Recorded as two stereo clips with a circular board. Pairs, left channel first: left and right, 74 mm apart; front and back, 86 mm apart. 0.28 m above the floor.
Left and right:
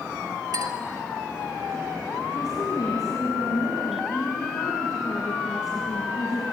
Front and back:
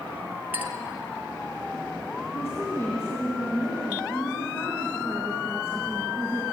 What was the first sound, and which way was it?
A clink, 110° right.